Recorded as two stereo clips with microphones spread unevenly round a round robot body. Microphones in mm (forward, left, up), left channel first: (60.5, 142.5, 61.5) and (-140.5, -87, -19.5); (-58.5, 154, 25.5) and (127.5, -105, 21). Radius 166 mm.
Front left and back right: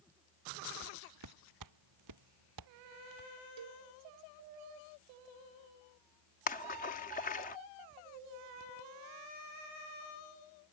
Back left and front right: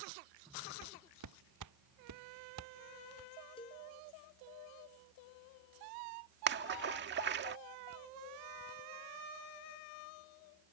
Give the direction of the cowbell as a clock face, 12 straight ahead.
5 o'clock.